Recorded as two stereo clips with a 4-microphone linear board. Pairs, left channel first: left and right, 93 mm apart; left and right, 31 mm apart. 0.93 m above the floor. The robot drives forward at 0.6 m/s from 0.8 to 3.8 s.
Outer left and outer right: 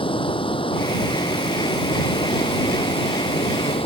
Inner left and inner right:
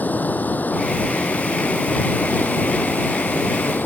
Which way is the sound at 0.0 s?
65° left (ahead or behind).